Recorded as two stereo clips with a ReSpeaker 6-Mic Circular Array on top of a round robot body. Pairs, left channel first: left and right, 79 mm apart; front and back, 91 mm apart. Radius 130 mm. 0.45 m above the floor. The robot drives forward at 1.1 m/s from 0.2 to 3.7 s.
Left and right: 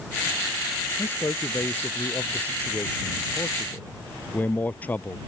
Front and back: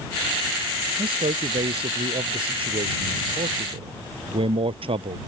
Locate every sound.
1.0 s a man speaking: 155° left; by 5.2 s 160° left